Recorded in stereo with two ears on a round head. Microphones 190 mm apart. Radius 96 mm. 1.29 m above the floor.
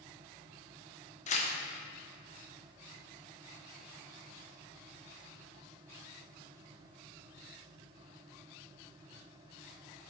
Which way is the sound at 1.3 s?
35° left (ahead or behind).